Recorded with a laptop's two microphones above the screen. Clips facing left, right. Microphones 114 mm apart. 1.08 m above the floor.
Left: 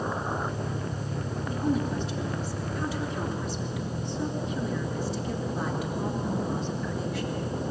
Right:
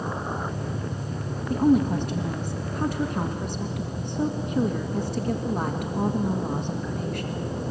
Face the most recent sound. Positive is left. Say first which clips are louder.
# right 8 dB
turn(degrees=-55)  # may be behind; listen again after turning